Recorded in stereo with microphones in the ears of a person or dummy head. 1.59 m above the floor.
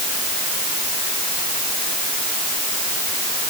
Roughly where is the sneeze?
I don't hear a sneeze.